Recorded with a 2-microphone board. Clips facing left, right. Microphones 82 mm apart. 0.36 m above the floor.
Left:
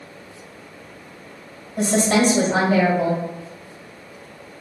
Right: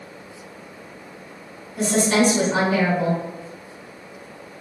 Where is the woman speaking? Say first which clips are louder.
Left 1 dB; 45° left (ahead or behind), 1.6 m.